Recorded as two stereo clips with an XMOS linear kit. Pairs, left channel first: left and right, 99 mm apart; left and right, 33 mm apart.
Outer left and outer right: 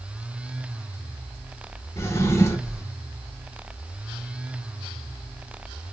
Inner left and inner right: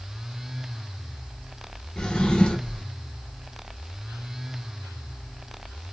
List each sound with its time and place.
2.0 s a drawer: 30° left (ahead or behind), 0.6 m